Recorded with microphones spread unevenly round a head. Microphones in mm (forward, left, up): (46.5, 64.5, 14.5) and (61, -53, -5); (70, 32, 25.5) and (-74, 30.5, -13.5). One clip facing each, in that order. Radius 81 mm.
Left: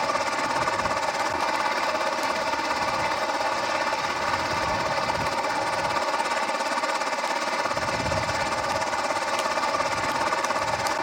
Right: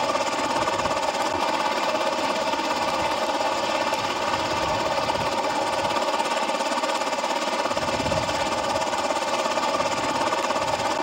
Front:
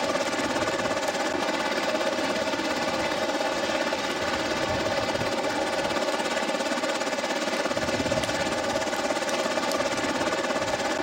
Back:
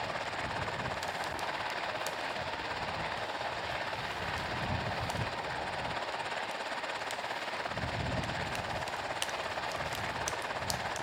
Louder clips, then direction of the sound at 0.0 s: Right 2 dB, front 12 dB; 10° right.